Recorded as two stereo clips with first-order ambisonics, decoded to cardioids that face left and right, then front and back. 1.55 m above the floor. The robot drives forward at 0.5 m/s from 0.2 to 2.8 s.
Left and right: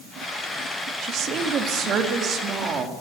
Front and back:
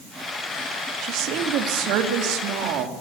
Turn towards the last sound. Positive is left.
turn(degrees=-150)